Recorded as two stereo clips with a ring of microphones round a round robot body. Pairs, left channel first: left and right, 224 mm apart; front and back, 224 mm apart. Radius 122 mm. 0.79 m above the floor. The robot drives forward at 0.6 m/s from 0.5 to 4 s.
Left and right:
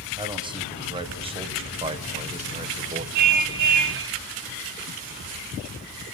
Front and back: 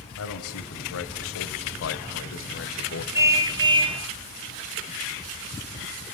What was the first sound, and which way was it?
A man speaking, 20° right.